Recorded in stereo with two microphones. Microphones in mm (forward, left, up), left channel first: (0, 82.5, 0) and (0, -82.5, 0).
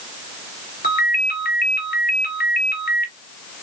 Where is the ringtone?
65° left (ahead or behind), 1.5 m.